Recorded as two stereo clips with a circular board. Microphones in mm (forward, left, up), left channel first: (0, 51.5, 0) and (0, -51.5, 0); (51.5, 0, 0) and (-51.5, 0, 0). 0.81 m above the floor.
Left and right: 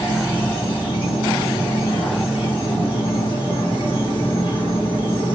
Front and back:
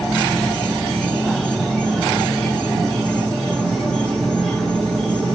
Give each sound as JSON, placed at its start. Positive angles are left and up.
{"t": 0.0, "sound": "an insect", "azimuth_deg": 85, "distance_m": 1.8}